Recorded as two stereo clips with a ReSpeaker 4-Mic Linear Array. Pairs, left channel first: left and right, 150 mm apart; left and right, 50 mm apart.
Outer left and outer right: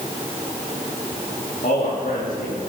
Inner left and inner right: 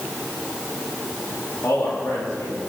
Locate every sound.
1.6 s a man speaking: 65° left (ahead or behind), 8.5 m